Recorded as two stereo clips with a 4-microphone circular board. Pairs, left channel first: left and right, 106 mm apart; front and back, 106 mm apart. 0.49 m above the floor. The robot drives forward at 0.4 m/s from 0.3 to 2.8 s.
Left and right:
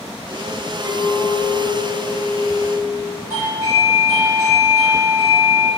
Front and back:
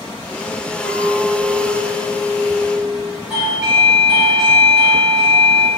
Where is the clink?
15° right, 1.4 m; by 3.2 s 40° right, 0.8 m.